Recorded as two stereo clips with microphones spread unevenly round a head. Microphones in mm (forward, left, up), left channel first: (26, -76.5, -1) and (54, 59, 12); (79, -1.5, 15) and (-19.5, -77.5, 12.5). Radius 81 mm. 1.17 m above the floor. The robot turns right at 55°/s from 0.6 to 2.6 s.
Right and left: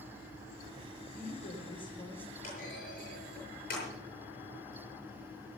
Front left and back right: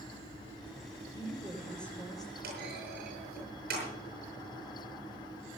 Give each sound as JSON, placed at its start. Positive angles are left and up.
{"t": 1.1, "sound": "a woman speaking", "azimuth_deg": -80, "distance_m": 4.5}
{"t": 2.4, "sound": "a clunk", "azimuth_deg": -155, "distance_m": 8.0}